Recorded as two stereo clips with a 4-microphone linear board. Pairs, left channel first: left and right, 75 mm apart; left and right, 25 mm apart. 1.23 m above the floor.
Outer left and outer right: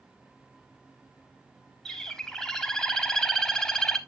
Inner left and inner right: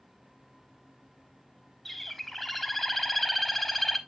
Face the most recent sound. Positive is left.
turn(degrees=5)  # may be behind; listen again after turning